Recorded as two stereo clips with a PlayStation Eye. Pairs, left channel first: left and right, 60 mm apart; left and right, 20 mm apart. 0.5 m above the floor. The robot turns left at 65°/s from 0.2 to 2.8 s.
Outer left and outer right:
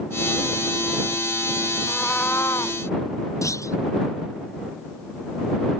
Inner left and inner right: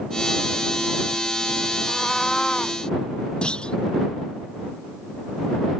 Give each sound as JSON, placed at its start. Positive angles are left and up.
{"t": 1.9, "sound": "a cat meowing", "azimuth_deg": 175}
{"t": 3.4, "sound": "a clunk", "side_deg": 55}